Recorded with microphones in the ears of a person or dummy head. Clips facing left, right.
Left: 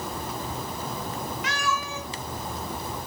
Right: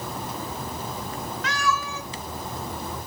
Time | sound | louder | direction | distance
1.4 | a cat meowing | right 5 dB | 20° left (ahead or behind) | 3 m